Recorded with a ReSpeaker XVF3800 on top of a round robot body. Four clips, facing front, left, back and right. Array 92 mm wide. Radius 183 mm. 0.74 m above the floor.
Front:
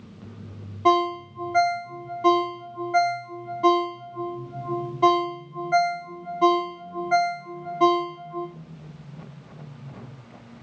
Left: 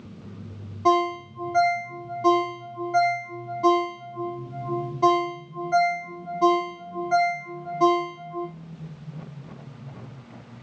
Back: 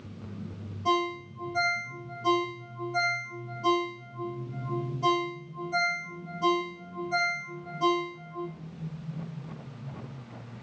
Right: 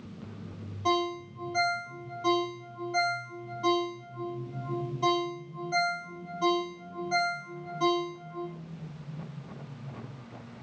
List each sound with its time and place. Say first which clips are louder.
0.8 s a ringtone: left 8 dB, front 7 dB; 30° left, 0.6 m